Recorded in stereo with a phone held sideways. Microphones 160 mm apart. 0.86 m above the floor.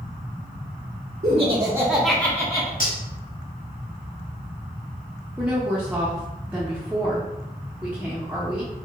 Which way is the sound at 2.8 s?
60° left (ahead or behind).